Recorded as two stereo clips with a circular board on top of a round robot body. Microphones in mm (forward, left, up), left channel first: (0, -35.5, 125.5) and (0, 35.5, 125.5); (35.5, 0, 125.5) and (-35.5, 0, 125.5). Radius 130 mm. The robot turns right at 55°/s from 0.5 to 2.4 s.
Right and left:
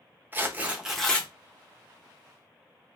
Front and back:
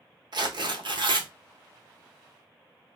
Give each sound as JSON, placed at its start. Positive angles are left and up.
{"t": 0.3, "sound": "tearing paper", "azimuth_deg": 155, "distance_m": 1.1}